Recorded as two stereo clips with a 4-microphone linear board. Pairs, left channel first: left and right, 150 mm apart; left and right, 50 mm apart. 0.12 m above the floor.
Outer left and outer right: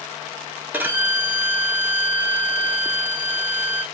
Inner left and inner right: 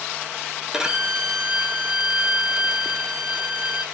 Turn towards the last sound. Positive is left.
turn(degrees=-15)  # may be behind; listen again after turning